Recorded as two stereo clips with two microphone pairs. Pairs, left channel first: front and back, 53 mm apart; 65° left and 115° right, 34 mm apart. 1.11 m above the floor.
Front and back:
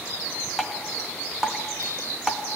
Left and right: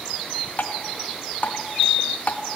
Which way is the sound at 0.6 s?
100° left.